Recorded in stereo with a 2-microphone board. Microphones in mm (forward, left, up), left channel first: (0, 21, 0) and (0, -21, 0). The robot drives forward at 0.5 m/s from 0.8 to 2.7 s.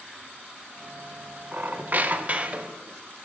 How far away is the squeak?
About 0.5 m.